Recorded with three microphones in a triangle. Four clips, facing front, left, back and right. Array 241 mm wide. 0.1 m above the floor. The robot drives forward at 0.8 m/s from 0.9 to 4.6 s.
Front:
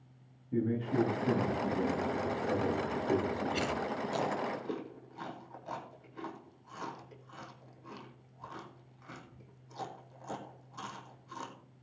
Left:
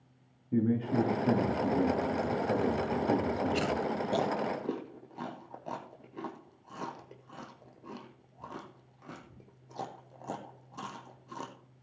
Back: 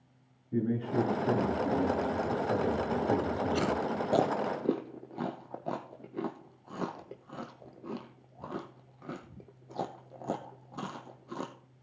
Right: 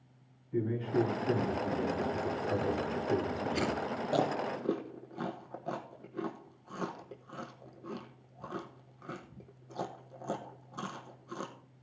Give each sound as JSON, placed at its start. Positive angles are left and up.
{"t": 0.5, "sound": "a man speaking", "azimuth_deg": 90, "distance_m": 7.5}
{"t": 3.5, "sound": "chewing", "azimuth_deg": -140, "distance_m": 0.5}